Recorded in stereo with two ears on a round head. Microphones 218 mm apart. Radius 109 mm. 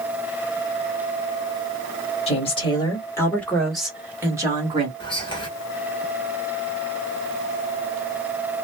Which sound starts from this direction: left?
A woman speaking, at 2.3 s.